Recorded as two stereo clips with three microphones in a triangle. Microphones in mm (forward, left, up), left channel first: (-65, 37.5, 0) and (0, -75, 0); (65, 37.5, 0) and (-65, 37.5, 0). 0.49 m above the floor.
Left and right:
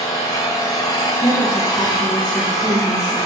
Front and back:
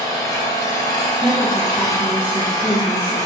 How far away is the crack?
No crack in this recording.